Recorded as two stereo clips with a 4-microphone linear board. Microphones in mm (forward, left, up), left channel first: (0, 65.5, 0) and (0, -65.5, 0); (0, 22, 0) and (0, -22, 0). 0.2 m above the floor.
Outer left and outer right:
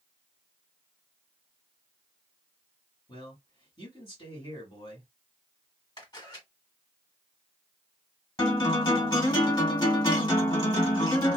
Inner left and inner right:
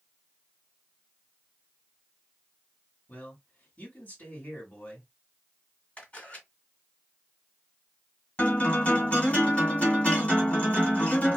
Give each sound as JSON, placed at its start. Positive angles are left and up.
{"t": 3.1, "sound": "a man speaking", "side_deg": 40, "distance_m": 1.6}
{"t": 6.0, "sound": "a camera shutter", "side_deg": 35, "distance_m": 1.7}
{"t": 8.4, "sound": "a guitar", "side_deg": 35, "distance_m": 2.0}